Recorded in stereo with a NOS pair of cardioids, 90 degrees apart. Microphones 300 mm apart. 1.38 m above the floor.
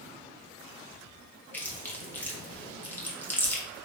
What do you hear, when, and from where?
1.5 s chewing: 5° left, 0.7 m